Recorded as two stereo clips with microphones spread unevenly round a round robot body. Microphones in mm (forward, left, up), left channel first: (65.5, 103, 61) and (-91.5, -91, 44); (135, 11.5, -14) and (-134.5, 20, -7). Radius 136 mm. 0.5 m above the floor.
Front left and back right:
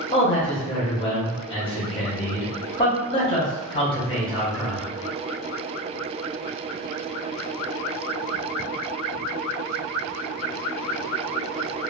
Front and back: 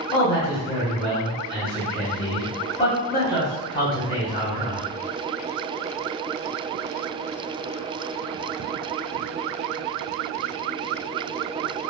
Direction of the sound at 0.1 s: 15° left.